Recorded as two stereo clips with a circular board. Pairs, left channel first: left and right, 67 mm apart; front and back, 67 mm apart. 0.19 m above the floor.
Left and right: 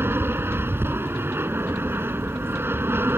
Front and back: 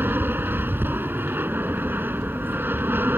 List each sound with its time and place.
0.0 s an aircraft: 130° right